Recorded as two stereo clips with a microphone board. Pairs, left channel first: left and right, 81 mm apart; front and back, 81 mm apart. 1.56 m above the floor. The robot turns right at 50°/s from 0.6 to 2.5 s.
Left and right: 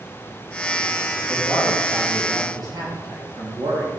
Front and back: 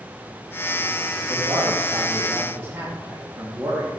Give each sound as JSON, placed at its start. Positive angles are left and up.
{"t": 1.3, "sound": "a man speaking", "azimuth_deg": 175, "distance_m": 3.5}